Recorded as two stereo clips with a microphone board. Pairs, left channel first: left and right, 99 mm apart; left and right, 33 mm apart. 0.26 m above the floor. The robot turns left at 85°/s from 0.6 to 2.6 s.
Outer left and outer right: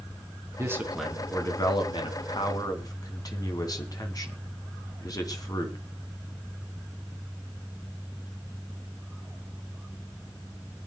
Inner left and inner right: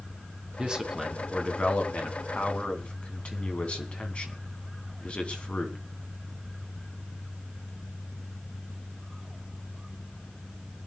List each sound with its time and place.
0.6 s a man speaking: 140° right, 2.5 m; by 5.8 s 50° left, 2.5 m